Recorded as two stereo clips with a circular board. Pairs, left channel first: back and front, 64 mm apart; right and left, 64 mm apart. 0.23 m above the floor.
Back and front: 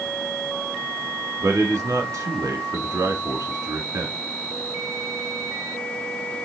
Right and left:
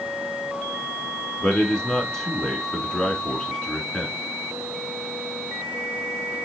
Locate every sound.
1.4 s a man speaking: 10° right, 2.5 m